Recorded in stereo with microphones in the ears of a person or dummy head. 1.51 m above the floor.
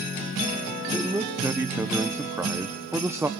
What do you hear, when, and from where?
0.9 s a man speaking: 10° right (ahead or behind), 1.1 m